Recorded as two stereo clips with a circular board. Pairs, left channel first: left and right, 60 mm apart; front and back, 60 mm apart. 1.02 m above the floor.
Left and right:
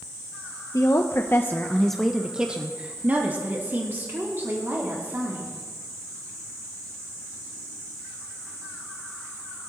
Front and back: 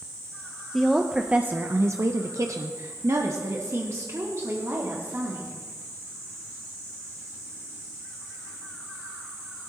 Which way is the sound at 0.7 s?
90° left.